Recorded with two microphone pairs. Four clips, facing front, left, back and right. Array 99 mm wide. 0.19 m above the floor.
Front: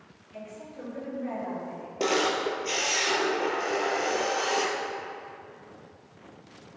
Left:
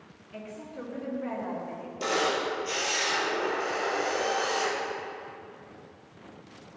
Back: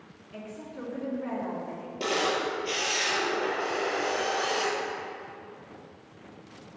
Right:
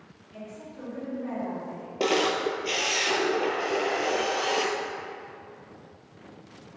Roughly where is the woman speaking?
Behind left.